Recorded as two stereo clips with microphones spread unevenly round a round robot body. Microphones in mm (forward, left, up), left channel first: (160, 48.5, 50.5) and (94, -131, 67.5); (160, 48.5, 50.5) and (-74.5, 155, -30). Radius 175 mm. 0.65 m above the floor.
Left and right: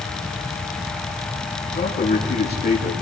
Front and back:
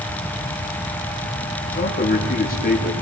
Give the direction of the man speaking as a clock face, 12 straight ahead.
11 o'clock.